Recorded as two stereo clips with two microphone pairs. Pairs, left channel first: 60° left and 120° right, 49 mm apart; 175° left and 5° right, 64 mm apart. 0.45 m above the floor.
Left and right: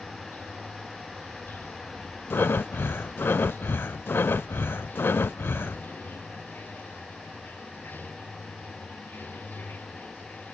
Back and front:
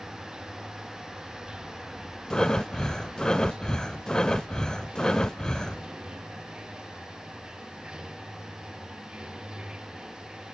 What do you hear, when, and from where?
0.0 s running water: 65° left, 1.1 m
2.3 s breathing: 95° left, 0.5 m